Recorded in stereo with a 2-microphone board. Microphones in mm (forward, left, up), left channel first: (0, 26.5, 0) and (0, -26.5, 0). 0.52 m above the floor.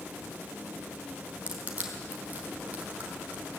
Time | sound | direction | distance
1.5 | crushing | 25° right (ahead or behind) | 3.5 m